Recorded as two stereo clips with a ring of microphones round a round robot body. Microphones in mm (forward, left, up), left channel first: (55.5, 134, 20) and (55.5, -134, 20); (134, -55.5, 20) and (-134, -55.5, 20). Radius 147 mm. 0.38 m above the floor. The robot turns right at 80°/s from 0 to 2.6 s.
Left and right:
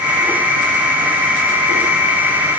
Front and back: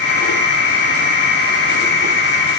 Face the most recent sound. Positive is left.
No sound to turn to.